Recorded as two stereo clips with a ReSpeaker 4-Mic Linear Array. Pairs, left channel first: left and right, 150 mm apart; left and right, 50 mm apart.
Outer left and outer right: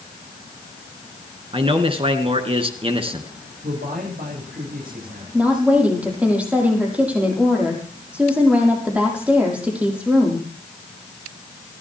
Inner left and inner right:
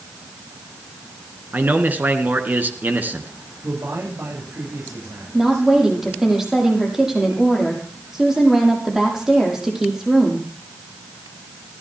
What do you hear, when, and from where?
1.5 s a man speaking: 40° right (ahead or behind), 2.5 m
3.6 s a man speaking: 80° right, 9.5 m
5.3 s a woman speaking: 10° right (ahead or behind), 6.5 m